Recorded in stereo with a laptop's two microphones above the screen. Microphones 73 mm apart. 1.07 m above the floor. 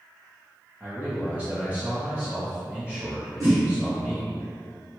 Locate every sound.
0.8 s a man speaking: 15° right (ahead or behind), 1.0 m
3.4 s a whoosh: 50° right (ahead or behind), 0.9 m